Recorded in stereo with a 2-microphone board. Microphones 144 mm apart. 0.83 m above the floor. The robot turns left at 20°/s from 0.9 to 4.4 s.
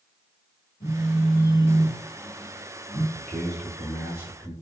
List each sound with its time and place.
0.8 s a phone buzzing: 55° left, 1.5 m; by 3.0 s 10° left, 1.5 m
3.1 s a man speaking: centre (ahead or behind), 1.7 m; by 4.5 s 20° right (ahead or behind), 1.7 m